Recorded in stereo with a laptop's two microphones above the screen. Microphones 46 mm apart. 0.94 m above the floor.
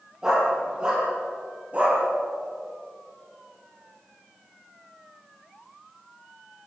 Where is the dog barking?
15° right (ahead or behind), 7.5 m; by 2.0 s 30° right (ahead or behind), 5.5 m.